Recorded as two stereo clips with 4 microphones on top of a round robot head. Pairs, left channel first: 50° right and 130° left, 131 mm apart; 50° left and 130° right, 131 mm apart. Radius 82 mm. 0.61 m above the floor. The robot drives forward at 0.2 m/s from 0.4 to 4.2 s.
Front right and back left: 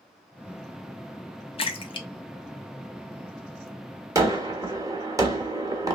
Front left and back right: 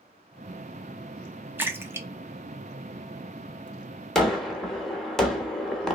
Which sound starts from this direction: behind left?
A gunshot, at 4.2 s.